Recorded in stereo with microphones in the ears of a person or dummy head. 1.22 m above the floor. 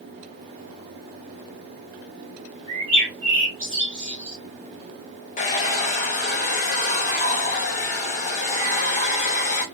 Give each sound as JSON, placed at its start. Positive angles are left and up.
{"t": 2.7, "sound": "a bird", "side_deg": -30, "distance_m": 1.4}
{"t": 5.4, "sound": "a hair dryer", "side_deg": 30, "distance_m": 0.8}